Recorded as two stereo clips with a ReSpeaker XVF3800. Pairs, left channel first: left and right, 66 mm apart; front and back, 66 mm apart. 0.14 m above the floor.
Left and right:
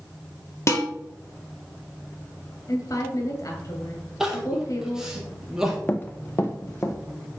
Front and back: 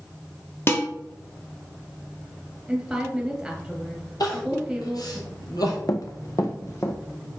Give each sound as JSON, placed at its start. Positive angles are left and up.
{"t": 0.7, "sound": "dishes clattering", "azimuth_deg": 50, "distance_m": 1.9}
{"t": 2.7, "sound": "a woman speaking", "azimuth_deg": 100, "distance_m": 2.5}
{"t": 4.2, "sound": "crying", "azimuth_deg": -10, "distance_m": 1.7}
{"t": 5.9, "sound": "running footsteps", "azimuth_deg": 25, "distance_m": 0.7}